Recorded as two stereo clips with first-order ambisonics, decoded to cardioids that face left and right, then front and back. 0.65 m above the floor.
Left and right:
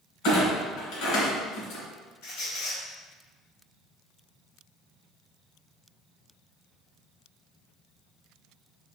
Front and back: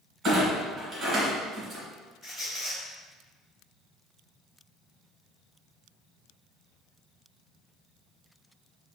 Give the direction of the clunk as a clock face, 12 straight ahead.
8 o'clock.